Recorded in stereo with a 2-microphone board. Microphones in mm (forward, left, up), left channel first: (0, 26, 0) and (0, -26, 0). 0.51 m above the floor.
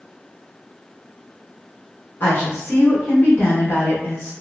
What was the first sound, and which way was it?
A woman speaking, 40° left (ahead or behind).